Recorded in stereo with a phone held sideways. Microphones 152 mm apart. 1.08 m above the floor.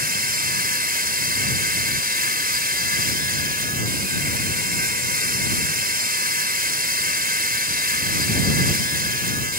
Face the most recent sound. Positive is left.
turn(degrees=-80)